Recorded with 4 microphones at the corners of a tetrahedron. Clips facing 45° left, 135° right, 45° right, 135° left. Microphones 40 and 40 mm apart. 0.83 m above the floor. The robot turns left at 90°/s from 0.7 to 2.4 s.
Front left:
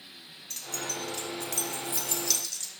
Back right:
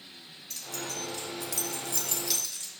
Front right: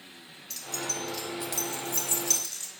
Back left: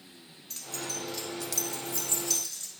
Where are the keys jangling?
85° left, 1.2 m; by 2.7 s 70° right, 1.2 m.